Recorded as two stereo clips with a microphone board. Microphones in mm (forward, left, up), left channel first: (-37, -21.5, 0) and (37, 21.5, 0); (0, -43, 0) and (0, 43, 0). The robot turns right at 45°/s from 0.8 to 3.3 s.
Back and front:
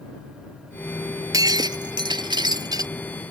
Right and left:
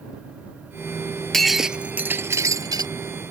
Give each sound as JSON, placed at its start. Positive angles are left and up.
{"t": 1.3, "sound": "breaking glass", "azimuth_deg": -5}